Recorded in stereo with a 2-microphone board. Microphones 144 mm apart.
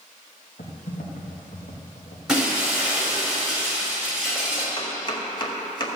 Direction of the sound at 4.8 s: 35° left (ahead or behind).